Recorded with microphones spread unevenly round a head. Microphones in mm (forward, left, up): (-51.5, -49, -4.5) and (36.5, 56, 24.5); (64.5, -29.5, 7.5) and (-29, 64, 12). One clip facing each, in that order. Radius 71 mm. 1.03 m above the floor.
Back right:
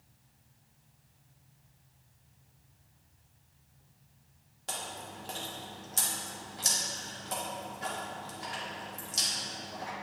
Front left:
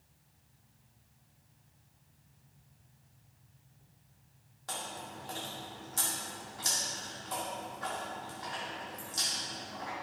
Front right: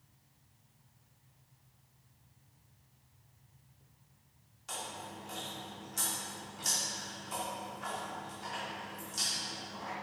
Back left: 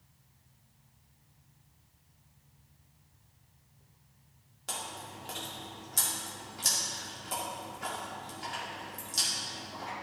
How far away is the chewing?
About 2 m.